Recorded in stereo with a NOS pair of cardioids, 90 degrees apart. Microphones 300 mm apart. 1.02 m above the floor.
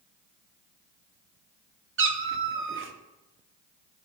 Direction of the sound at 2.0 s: 45° right.